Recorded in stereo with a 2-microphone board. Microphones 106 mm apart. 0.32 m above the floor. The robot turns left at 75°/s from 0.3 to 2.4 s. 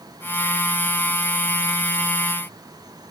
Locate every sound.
Only background noise.